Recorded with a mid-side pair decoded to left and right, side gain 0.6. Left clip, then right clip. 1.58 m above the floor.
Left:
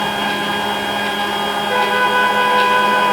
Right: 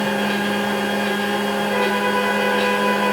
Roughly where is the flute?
Ahead left.